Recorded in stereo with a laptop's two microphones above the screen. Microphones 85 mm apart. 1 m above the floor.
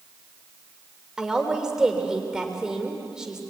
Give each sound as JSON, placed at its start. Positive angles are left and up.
{"t": 1.2, "sound": "a woman speaking", "side_deg": -5, "distance_m": 3.0}